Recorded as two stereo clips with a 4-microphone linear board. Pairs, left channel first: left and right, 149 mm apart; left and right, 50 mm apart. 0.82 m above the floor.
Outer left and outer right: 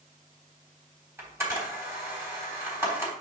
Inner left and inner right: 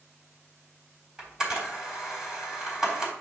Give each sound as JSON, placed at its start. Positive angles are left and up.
{"t": 1.2, "sound": "a camera shutter", "side_deg": -15, "distance_m": 3.5}